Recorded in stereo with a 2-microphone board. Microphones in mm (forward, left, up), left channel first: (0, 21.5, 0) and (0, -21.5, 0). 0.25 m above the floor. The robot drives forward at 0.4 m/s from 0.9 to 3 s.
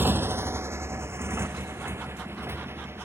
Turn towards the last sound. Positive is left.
turn(degrees=-70)  # may be behind; listen again after turning